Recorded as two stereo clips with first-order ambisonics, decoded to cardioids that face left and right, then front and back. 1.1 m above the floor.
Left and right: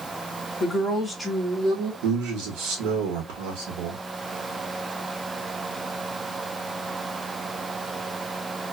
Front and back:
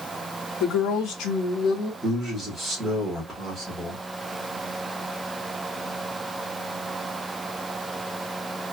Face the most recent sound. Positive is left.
turn(degrees=-90)